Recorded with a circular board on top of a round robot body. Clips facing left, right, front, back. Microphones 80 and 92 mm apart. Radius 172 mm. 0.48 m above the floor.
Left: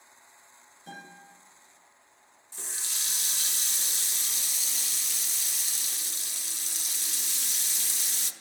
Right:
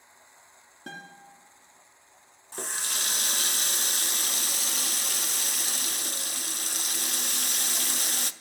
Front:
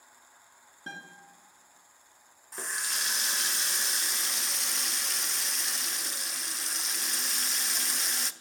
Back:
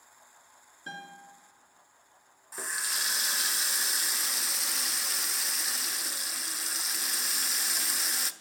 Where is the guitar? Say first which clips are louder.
Right 2 dB, back 1 dB; 65° right, 2.5 m.